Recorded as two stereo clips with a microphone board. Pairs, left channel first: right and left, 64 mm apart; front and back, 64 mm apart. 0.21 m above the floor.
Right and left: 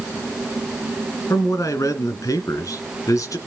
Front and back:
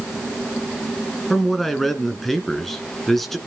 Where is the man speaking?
85° right, 2.0 m.